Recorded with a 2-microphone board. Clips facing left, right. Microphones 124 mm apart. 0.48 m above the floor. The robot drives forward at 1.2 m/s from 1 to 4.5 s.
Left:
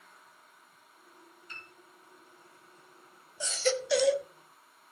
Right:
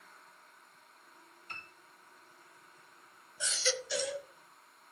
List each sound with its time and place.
1.5 s a piano: 55° right (ahead or behind), 2.5 m
3.4 s a baby crying: 35° left (ahead or behind), 1.1 m; by 4.3 s 70° left (ahead or behind), 0.7 m